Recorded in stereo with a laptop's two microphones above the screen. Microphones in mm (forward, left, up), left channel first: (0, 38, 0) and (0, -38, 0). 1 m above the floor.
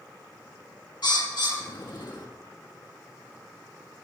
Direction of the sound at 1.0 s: 70° left (ahead or behind).